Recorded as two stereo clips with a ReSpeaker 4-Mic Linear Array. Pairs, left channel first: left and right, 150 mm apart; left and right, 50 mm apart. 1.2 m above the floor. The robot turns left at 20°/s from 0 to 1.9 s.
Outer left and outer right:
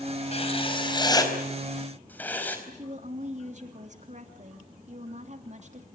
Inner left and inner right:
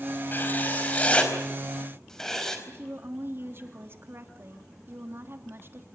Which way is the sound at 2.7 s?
50° right (ahead or behind).